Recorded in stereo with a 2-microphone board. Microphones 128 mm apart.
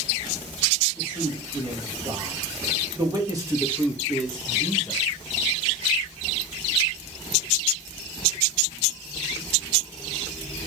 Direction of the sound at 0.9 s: 55° right (ahead or behind).